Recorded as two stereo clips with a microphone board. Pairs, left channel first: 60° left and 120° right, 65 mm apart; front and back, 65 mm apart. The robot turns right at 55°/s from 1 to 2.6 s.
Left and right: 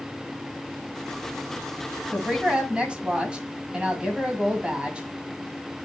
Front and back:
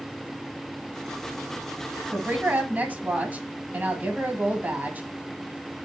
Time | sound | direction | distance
2.1 | a woman speaking | 160° left | 1.7 m